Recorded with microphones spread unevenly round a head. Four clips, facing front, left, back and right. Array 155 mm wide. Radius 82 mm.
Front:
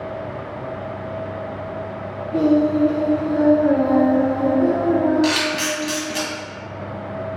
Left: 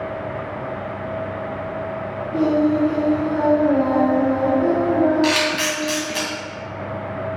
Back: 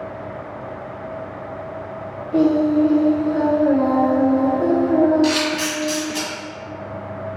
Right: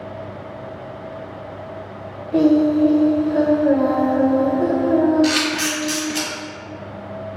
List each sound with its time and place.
2.3 s singing: 130° right, 0.7 m
5.2 s a camera shutter: 65° left, 1.5 m